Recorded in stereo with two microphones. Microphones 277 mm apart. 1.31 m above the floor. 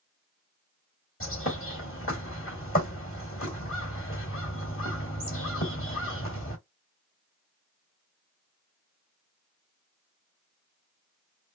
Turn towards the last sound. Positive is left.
turn(degrees=50)  # may be behind; listen again after turning